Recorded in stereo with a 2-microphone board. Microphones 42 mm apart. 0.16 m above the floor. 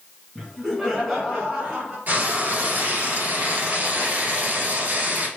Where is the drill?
No drill in this recording.